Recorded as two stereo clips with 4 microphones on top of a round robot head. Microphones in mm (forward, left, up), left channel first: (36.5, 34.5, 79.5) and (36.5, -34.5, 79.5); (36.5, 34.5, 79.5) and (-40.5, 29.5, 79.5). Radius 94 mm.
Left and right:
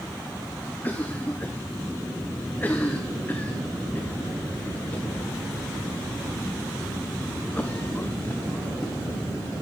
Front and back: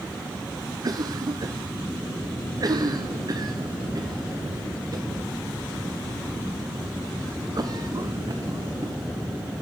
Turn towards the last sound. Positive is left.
turn(degrees=155)